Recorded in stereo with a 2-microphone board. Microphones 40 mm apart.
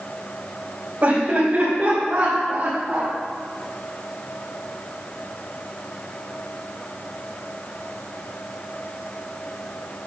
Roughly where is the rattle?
I don't hear a rattle.